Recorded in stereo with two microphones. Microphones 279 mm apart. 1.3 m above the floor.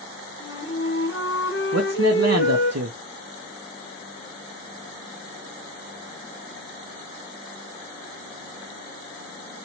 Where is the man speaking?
65° right (ahead or behind), 0.6 m.